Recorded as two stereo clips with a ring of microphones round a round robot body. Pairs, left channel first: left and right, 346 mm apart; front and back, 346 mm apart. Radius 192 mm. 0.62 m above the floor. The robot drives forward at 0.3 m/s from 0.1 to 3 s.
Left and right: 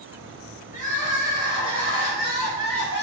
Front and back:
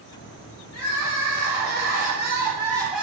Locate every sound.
0.7 s crying: 25° left, 1.0 m; by 3.0 s 95° left, 0.8 m